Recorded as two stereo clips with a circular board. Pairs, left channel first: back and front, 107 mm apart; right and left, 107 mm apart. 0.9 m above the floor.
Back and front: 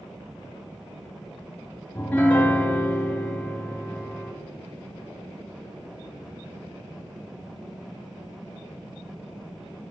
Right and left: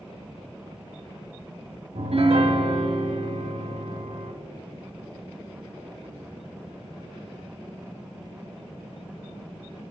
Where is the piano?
105° left, 1.0 m.